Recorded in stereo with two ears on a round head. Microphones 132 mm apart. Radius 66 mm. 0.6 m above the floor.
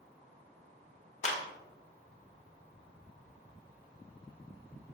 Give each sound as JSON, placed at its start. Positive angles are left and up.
{"t": 1.2, "sound": "a clap", "side_deg": 50, "distance_m": 1.4}